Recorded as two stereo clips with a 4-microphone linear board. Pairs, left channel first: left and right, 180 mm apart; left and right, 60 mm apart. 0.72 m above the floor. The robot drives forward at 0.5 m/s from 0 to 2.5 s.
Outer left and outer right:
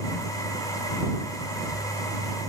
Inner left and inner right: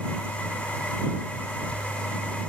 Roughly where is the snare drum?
No snare drum in this recording.